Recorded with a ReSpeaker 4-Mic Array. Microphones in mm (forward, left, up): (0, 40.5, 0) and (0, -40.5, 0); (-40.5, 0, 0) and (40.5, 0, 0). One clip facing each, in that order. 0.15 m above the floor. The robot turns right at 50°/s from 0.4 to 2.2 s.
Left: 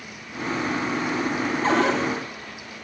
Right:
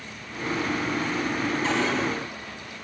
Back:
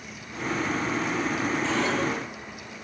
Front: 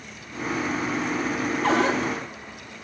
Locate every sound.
1.6 s a cupboard door: 40° left, 6.5 m; by 2.0 s 55° left, 6.5 m